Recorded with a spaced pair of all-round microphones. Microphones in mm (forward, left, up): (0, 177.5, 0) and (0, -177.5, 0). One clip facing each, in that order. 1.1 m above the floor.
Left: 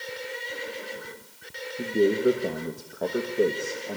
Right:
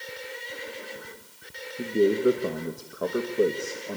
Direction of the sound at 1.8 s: 5° right (ahead or behind).